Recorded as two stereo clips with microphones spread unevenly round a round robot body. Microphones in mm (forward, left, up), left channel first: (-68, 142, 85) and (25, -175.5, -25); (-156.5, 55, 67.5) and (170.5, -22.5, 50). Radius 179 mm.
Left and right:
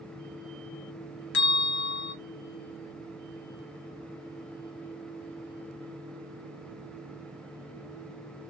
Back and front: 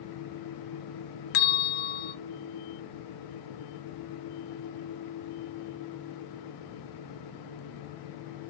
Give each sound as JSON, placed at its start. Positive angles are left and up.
{"t": 1.3, "sound": "a bell", "azimuth_deg": 160, "distance_m": 0.5}